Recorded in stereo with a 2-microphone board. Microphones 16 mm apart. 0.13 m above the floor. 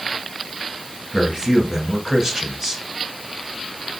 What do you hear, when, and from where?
1.1 s a man speaking: 35° right (ahead or behind), 1.4 m